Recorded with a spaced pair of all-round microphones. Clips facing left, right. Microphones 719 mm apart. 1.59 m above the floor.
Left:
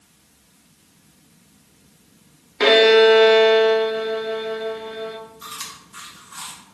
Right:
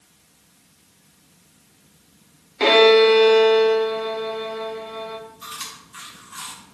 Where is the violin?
50° left (ahead or behind), 0.6 m.